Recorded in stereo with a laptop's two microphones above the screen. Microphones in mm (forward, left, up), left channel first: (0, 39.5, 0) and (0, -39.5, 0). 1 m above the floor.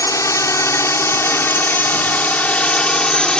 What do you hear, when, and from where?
0.0 s a drone: 45° left (ahead or behind); by 3.4 s 10° left (ahead or behind)